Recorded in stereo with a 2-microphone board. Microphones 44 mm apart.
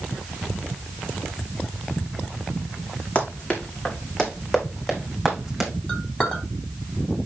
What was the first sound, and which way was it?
Running footsteps, 30° left (ahead or behind).